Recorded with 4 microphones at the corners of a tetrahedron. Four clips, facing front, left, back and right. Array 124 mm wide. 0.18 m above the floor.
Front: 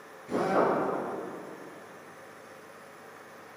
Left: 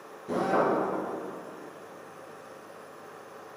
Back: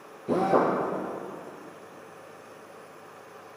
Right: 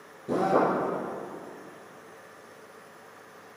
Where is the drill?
165° right, 5 m.